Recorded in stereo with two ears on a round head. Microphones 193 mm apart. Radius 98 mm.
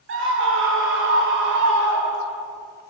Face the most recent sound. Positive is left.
turn(degrees=-60)  # may be behind; listen again after turning